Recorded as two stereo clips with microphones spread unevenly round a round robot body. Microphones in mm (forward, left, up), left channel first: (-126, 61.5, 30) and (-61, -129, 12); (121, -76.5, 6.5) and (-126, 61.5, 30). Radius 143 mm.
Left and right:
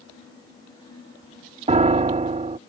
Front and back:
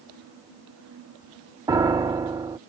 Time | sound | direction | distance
1.7 | a piano | 130° right | ?